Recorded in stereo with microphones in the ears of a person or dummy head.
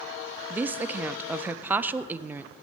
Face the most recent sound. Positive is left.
turn(degrees=-15)  # may be behind; listen again after turning